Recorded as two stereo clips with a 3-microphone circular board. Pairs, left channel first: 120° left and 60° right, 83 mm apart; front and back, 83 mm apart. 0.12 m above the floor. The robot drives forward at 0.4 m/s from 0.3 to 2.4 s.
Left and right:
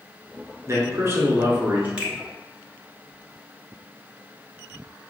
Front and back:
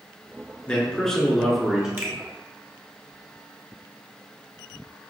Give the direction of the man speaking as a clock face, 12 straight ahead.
2 o'clock.